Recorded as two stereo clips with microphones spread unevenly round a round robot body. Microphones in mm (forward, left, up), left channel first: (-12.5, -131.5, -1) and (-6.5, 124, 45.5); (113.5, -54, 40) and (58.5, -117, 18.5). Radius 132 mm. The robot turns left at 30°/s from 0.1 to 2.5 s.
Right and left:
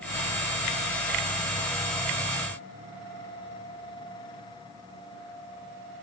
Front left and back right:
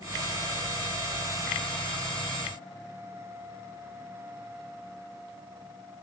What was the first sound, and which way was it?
Only background noise.